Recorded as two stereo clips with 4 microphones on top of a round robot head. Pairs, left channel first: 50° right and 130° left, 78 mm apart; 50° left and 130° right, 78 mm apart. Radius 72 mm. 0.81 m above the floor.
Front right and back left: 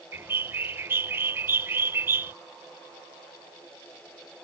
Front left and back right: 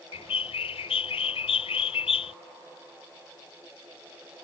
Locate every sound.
0.1 s a bird: 60° left